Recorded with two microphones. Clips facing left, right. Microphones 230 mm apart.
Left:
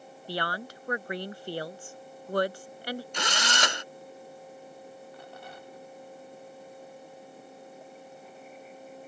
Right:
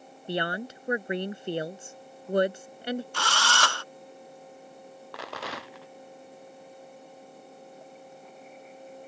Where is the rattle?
90° right.